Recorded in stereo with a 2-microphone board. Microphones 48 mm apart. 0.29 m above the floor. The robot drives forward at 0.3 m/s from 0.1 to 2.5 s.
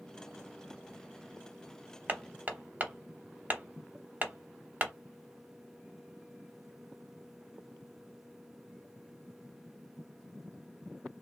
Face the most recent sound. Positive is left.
turn(degrees=-35)  # may be behind; listen again after turning